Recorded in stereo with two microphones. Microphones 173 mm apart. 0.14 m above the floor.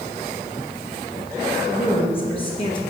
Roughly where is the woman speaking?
Left.